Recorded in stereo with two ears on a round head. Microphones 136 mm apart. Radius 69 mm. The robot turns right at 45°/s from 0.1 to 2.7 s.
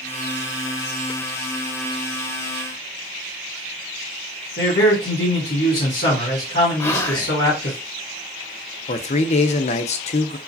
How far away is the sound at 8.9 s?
About 0.5 m.